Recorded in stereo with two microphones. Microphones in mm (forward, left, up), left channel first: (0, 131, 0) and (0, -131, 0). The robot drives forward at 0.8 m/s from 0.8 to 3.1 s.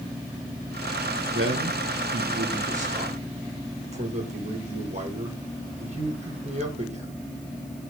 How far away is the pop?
I don't hear a pop.